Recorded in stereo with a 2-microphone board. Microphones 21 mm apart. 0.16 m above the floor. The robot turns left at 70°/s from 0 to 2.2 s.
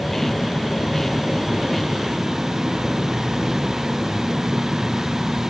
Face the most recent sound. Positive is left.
turn(degrees=-20)